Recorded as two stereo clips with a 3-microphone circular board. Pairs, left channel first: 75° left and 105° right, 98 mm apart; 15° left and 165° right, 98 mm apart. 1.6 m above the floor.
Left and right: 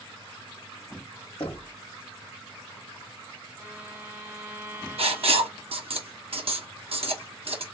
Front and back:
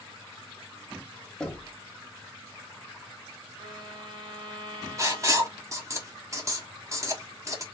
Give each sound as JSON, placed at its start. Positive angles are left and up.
{"t": 1.4, "sound": "knocking", "azimuth_deg": 100, "distance_m": 1.0}
{"t": 3.6, "sound": "a violin", "azimuth_deg": -155, "distance_m": 1.9}
{"t": 5.0, "sound": "writing", "azimuth_deg": -110, "distance_m": 0.8}